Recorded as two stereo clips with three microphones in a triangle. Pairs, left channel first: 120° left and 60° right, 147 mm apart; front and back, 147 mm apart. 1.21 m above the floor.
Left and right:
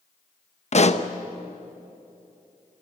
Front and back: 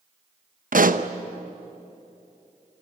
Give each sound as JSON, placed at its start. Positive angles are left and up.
{"t": 0.7, "sound": "a pop", "azimuth_deg": 160, "distance_m": 0.9}